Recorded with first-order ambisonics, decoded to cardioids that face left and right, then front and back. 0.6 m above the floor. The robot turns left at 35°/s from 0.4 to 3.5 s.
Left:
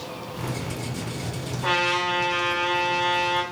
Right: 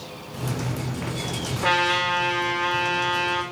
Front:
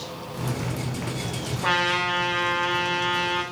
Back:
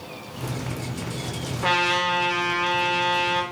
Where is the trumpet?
140° right, 1.7 m; by 3.4 s 160° left, 1.7 m.